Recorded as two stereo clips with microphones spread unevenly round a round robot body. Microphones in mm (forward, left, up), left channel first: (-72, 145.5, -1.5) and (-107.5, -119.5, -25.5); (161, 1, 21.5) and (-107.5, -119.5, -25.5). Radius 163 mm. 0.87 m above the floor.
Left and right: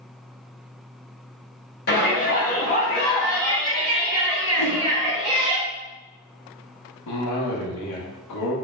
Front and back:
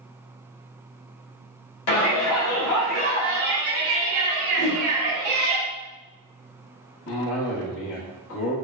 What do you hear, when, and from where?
1.9 s a shout: 30° left, 1.4 m; by 5.6 s 160° right, 1.8 m
4.6 s a whoosh: 165° left, 2.0 m
7.1 s a cough: 75° left, 0.8 m